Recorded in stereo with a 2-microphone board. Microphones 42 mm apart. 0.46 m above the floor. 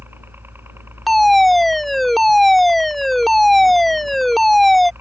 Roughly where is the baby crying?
I don't hear a baby crying.